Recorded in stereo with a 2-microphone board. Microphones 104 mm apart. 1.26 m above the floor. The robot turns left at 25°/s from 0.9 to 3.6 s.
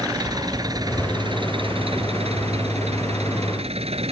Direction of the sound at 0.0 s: 40° right.